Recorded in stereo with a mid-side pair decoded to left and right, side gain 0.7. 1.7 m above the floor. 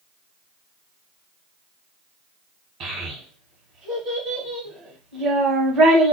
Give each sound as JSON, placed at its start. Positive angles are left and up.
{"t": 2.8, "sound": "a child speaking", "azimuth_deg": -50, "distance_m": 1.5}